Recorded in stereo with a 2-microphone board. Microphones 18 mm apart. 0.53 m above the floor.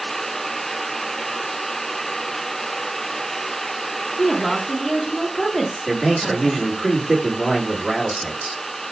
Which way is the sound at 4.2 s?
10° left (ahead or behind).